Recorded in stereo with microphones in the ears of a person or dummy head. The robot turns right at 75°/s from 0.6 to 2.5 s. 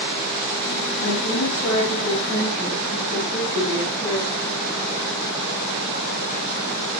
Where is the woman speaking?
60° left, 7.5 m; by 4.6 s 170° left, 7.5 m.